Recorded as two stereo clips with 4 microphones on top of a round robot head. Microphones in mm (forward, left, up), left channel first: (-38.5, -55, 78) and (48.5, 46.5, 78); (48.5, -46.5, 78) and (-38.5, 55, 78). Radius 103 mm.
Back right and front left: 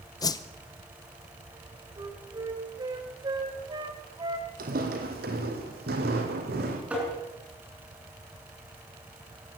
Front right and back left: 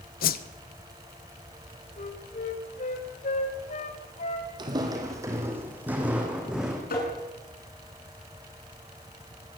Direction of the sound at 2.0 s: 15° right.